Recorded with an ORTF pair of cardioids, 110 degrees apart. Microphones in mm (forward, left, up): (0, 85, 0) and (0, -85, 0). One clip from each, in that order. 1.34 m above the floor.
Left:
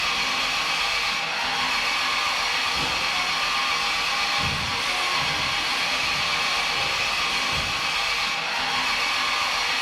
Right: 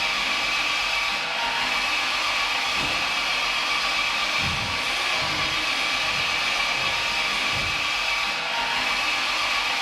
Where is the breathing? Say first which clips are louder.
Even; 15° left, 0.7 m.